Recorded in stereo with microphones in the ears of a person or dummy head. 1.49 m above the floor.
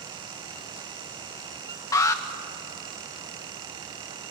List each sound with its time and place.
1.9 s an alarm: 15° left (ahead or behind), 1.1 m